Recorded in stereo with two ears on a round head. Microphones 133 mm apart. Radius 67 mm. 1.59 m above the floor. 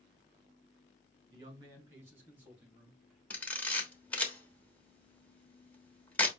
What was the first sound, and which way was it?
A man speaking, 25° right (ahead or behind).